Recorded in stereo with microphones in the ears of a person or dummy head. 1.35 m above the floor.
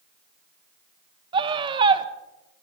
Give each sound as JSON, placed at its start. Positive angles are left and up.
{"t": 1.3, "sound": "a scream", "side_deg": -30, "distance_m": 1.3}